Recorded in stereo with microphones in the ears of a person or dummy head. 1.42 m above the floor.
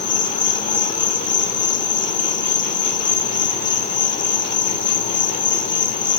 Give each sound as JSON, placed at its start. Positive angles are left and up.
{"t": 0.0, "sound": "an insect", "side_deg": 35, "distance_m": 0.8}